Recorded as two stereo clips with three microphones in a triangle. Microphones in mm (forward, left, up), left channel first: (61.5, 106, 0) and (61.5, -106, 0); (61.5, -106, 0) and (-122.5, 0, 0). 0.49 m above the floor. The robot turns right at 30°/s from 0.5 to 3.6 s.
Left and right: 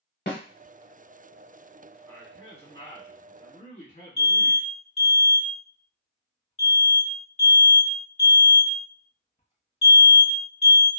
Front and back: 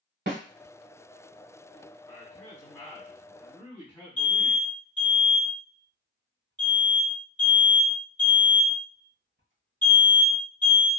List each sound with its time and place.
0.3 s a snare drum: 120° left, 1.0 m
2.1 s a man speaking: 25° left, 1.6 m; by 4.6 s 70° left, 1.6 m
4.2 s an alarm: 145° left, 1.5 m